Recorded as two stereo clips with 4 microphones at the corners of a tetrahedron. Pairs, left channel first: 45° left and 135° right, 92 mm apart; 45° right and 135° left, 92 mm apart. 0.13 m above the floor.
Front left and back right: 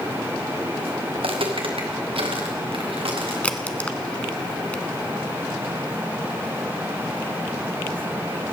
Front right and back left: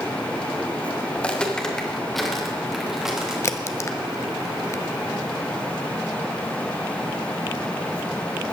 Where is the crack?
20° right, 0.9 m.